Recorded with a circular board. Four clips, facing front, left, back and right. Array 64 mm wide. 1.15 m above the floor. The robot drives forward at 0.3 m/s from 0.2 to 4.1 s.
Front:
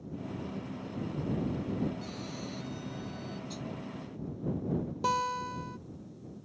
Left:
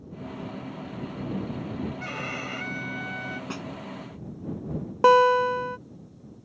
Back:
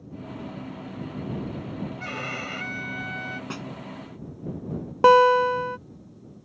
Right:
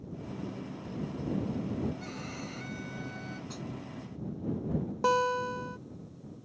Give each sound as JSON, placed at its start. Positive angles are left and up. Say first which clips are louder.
{"t": 2.0, "sound": "a violin", "louder": "left 7 dB, back 8 dB", "azimuth_deg": 145}
{"t": 3.5, "sound": "a snare drum", "louder": "left 6 dB, back 6 dB", "azimuth_deg": 140}
{"t": 5.0, "sound": "a guitar", "louder": "left 11 dB, back 17 dB", "azimuth_deg": 150}